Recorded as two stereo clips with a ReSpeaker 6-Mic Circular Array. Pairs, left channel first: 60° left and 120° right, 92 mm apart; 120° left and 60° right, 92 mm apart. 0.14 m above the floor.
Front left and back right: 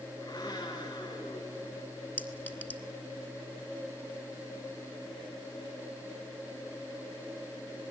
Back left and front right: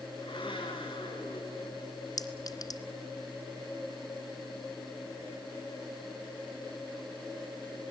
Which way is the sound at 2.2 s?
125° left.